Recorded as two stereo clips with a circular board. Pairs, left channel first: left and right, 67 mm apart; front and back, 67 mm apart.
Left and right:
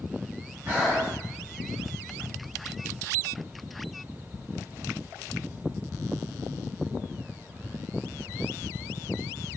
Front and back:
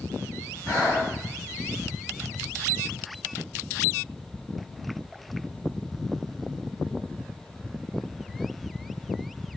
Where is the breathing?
25° right, 1.8 m.